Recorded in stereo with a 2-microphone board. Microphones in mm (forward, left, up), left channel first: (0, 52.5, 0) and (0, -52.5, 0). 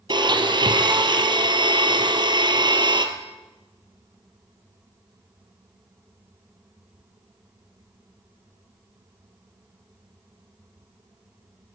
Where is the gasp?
No gasp in this recording.